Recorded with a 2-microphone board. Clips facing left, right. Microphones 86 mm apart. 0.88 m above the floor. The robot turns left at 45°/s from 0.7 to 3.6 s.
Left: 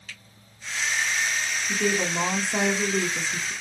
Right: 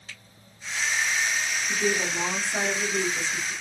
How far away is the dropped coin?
I don't hear a dropped coin.